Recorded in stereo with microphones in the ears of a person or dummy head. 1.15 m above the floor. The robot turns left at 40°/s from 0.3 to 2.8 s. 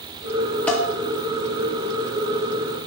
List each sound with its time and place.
0.7 s dishes clattering: 10° left (ahead or behind), 1.5 m; by 0.9 s centre (ahead or behind), 1.5 m